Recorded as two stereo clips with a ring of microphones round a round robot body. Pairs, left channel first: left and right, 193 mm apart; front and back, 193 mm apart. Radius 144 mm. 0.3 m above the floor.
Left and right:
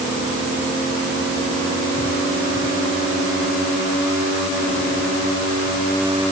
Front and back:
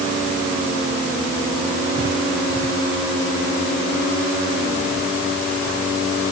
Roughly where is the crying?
I don't hear crying.